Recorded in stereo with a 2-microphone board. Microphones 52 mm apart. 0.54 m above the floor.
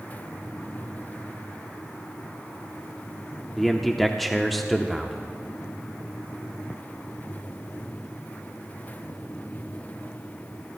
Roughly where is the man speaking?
Centre.